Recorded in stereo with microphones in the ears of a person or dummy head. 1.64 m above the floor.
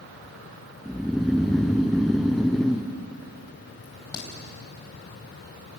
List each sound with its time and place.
0.8 s snoring: 5° left (ahead or behind), 0.5 m
3.8 s a crack: 25° left (ahead or behind), 4.5 m